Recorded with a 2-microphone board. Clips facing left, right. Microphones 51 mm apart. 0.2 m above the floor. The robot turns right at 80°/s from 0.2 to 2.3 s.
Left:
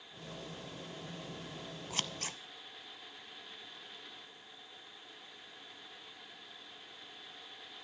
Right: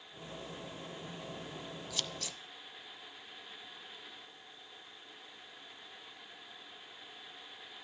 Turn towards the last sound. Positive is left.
turn(degrees=40)  # may be behind; listen again after turning